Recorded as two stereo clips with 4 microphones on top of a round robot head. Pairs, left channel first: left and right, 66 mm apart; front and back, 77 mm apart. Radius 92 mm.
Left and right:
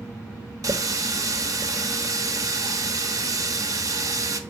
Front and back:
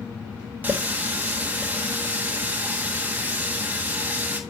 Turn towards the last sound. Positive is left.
turn(degrees=-115)